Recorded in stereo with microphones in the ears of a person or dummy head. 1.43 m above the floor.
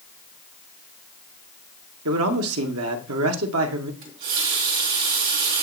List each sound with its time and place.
2.0 s a man speaking: 85° right, 0.8 m
4.0 s a running tap: 50° right (ahead or behind), 1.9 m